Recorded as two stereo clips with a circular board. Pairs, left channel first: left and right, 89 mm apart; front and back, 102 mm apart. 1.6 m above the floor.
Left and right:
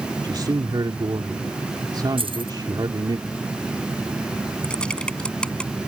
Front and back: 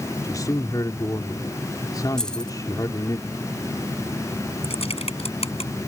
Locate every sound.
0.2 s a man speaking: 55° right
2.2 s keys jangling: 85° right
4.6 s typing on a keyboard: 10° left